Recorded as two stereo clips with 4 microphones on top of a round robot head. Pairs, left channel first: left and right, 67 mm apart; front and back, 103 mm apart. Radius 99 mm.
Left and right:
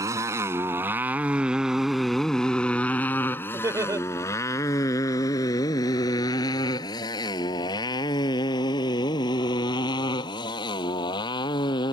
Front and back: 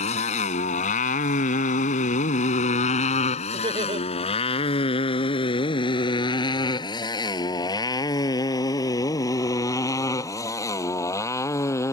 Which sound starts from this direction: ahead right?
A motorcycle, at 0.0 s.